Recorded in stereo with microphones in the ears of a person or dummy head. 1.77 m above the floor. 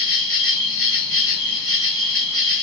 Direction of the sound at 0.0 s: 45° right (ahead or behind).